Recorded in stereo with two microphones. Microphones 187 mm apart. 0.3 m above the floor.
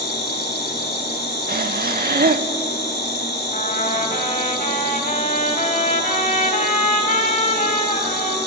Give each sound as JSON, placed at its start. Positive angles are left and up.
{"t": 0.0, "sound": "an insect", "side_deg": -70, "distance_m": 1.3}
{"t": 1.5, "sound": "breathing", "side_deg": -55, "distance_m": 0.5}
{"t": 3.5, "sound": "a trumpet", "side_deg": 45, "distance_m": 1.2}